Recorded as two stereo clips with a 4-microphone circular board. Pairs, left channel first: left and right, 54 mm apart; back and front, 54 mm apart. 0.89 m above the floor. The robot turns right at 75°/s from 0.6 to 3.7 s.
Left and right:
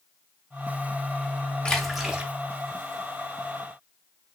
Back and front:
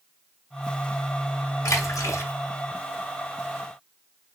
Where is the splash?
160° left, 0.7 m; by 2.3 s 150° right, 0.7 m.